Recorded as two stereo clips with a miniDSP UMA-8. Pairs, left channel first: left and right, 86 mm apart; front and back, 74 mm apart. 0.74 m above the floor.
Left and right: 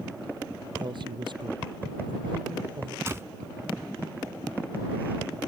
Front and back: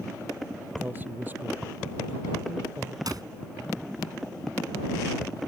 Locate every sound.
0.8 s a man speaking: 115° right
3.1 s a clap: 150° right